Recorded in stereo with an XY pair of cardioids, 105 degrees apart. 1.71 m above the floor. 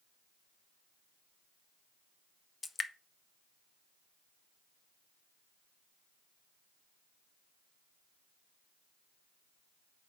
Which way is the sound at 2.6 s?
30° left.